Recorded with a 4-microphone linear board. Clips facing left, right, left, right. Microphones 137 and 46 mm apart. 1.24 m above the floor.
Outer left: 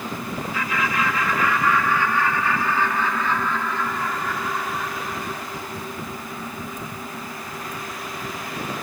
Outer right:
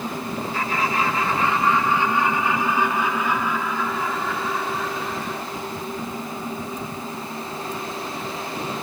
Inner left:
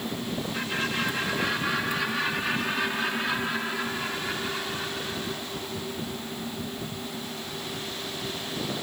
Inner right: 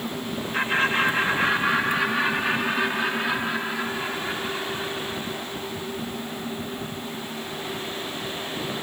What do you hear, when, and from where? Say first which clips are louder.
0.5 s laughter: outer right 1 dB, inner right 9 dB; 40° right (ahead or behind); by 5.4 s centre (ahead or behind)